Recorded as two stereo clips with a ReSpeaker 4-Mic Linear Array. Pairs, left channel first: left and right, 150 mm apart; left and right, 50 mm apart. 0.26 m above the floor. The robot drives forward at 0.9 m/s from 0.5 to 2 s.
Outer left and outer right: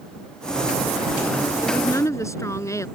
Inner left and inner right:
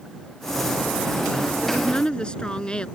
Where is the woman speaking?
20° left (ahead or behind).